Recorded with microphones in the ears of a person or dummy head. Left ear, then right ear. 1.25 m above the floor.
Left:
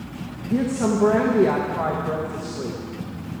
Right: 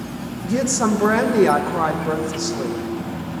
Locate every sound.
0.4 s a woman speaking: 75° right (ahead or behind), 1.1 m